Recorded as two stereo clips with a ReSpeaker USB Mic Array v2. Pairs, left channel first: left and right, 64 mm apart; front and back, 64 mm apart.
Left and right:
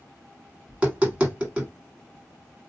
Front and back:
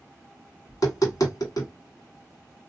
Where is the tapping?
20° right, 1.8 m.